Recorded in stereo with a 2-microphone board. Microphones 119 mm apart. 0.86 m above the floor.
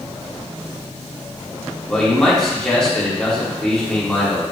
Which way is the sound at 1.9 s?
5° left (ahead or behind).